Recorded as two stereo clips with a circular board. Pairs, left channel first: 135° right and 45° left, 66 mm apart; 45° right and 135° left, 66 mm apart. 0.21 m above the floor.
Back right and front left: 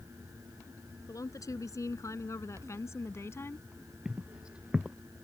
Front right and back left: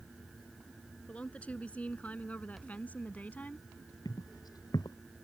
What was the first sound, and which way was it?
A woman speaking, 115° right.